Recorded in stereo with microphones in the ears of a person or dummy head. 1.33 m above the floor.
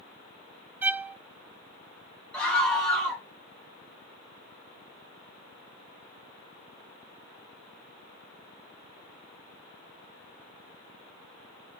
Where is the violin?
5° right (ahead or behind), 0.5 m.